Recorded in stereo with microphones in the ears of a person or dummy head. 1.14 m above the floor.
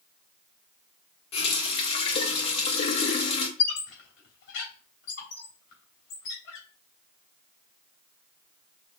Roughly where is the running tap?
Left.